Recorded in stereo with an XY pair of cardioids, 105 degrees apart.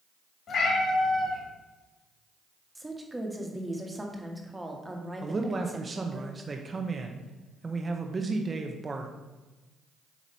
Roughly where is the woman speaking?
Ahead.